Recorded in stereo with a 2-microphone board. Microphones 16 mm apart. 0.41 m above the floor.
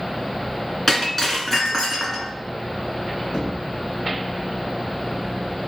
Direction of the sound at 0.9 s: 25° left (ahead or behind).